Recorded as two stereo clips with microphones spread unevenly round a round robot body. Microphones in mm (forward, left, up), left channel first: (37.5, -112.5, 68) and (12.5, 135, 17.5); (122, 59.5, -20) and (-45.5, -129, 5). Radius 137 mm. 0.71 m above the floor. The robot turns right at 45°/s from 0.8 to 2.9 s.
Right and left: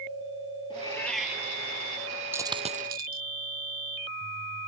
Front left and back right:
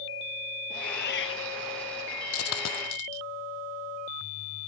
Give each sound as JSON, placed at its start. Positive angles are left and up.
{"t": 0.7, "sound": "a cat meowing", "azimuth_deg": -15}
{"t": 2.3, "sound": "a dropped coin", "azimuth_deg": 10}